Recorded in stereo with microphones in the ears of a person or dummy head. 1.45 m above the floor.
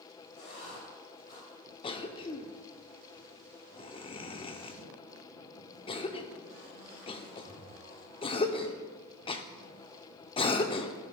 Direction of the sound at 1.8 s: 30° left (ahead or behind).